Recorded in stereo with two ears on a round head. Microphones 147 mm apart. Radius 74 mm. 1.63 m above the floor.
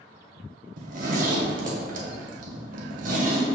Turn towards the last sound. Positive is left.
turn(degrees=-55)  # may be behind; listen again after turning